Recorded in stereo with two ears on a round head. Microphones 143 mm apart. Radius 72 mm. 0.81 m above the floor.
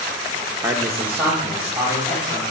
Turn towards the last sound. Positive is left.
turn(degrees=-15)  # may be behind; listen again after turning